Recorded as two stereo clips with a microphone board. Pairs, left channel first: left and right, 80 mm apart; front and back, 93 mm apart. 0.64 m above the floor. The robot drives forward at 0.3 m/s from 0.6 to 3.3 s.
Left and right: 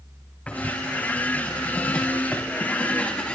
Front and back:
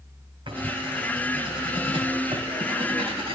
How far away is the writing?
About 3.5 m.